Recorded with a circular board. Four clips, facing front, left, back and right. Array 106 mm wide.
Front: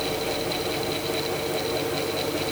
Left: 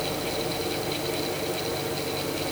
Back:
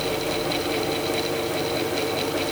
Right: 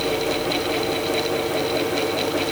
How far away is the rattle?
No rattle in this recording.